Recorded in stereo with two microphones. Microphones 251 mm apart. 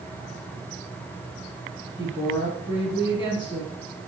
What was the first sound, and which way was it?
A woman speaking, 20° left (ahead or behind).